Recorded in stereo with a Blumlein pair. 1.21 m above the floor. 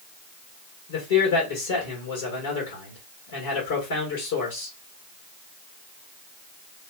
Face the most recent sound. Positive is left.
turn(degrees=60)